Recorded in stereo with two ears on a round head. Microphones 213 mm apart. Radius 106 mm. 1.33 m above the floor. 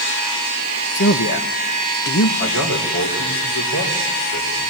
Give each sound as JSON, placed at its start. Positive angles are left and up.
{"t": 0.9, "sound": "a man speaking", "side_deg": 50, "distance_m": 1.0}
{"t": 2.4, "sound": "a man speaking", "side_deg": 85, "distance_m": 4.0}